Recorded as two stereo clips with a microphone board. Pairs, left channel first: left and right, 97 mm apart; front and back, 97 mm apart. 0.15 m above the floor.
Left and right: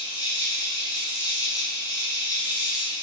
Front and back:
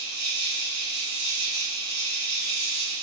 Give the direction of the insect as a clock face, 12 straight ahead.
9 o'clock.